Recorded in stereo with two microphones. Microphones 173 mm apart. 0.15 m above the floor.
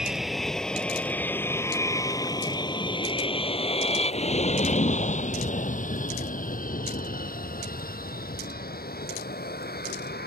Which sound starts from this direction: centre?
An aircraft, at 0.0 s.